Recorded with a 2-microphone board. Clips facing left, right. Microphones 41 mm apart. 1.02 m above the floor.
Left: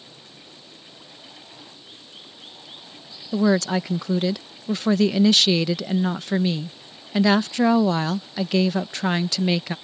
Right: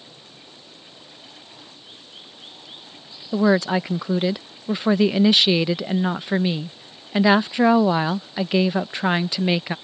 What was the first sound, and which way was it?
Running water, 10° right (ahead or behind).